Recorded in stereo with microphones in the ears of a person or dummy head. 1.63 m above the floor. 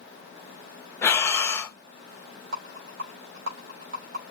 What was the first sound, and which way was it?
Breathing, 10° left (ahead or behind).